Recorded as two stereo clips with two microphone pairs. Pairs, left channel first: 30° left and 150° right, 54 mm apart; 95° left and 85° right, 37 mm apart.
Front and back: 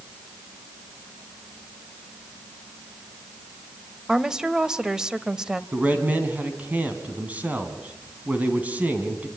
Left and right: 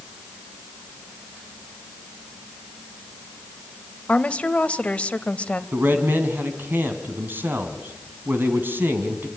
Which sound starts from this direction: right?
A man speaking, at 5.7 s.